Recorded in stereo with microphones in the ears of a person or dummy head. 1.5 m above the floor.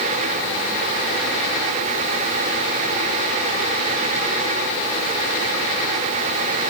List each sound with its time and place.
Only background noise.